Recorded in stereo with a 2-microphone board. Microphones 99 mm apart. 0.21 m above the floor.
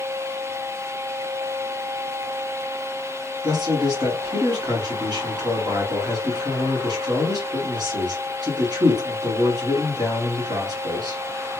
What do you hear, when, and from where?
3.4 s a man speaking: 50° right (ahead or behind), 1.9 m